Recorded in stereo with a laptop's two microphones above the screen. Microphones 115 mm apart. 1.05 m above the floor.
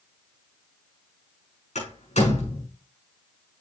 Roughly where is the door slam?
Left.